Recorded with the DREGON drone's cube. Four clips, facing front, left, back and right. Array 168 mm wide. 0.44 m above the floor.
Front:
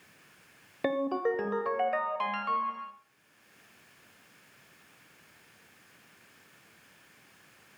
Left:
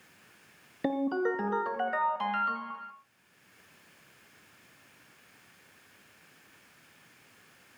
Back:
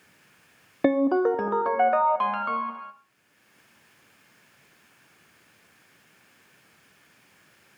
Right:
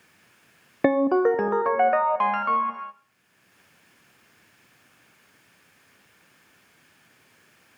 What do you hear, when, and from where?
0.8 s a ringtone: 115° right, 0.7 m